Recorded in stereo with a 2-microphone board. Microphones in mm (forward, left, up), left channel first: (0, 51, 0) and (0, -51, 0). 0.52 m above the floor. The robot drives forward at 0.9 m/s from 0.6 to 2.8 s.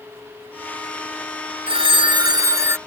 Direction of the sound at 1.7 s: 65° right (ahead or behind).